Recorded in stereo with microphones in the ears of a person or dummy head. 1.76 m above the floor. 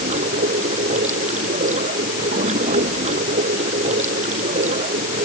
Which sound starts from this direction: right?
Running water, at 0.0 s.